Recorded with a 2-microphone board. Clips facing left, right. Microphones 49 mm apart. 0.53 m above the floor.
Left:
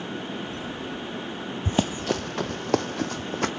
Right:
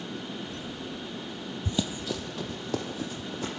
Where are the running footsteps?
45° left (ahead or behind), 0.7 m; by 3.5 s 65° left (ahead or behind), 1.5 m.